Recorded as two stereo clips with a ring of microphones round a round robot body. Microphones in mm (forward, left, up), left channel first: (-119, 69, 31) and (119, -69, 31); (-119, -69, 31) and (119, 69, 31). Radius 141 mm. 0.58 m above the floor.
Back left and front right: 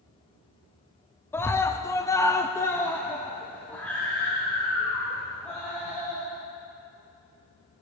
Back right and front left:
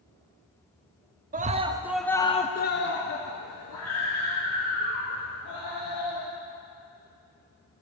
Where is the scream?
70° left, 0.8 m; by 6.3 s 120° right, 2.5 m.